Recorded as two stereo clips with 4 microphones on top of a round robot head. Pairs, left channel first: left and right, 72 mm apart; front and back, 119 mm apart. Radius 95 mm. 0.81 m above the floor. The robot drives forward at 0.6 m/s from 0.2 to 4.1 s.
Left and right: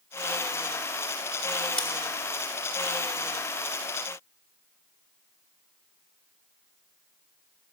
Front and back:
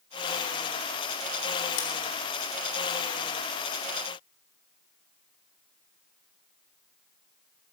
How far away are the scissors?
About 2.5 m.